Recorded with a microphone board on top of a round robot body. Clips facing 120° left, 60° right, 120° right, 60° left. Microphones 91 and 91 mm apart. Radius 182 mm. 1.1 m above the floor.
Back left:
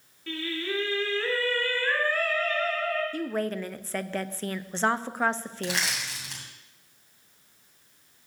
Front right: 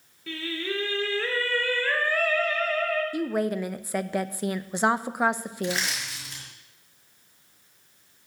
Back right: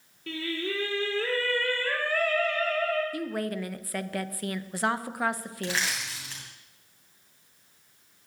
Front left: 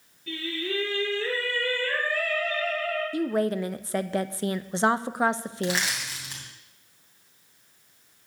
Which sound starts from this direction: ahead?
A woman speaking, at 3.1 s.